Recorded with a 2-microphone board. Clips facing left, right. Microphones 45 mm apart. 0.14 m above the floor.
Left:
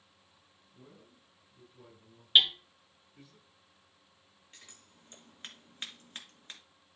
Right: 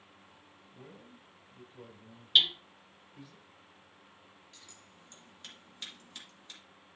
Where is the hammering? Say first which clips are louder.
Left 2 dB; 25° left (ahead or behind), 1.5 m.